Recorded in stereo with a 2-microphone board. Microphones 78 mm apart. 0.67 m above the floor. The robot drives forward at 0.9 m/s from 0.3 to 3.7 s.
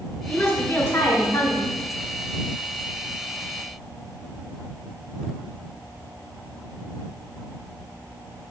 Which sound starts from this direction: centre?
A woman speaking, at 0.3 s.